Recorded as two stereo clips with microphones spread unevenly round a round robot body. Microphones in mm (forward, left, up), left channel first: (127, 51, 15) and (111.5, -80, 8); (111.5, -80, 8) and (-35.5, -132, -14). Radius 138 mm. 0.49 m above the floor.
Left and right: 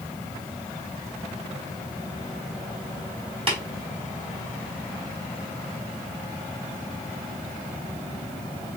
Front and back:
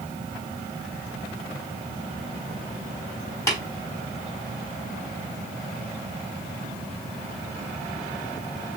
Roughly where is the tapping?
Ahead right.